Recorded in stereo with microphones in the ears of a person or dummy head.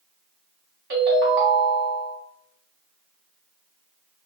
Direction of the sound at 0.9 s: 45° right (ahead or behind).